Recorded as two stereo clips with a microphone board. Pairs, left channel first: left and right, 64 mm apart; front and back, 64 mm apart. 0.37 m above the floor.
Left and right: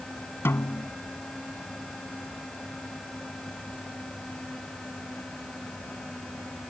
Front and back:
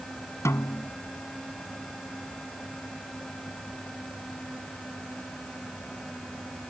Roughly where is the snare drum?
Ahead left.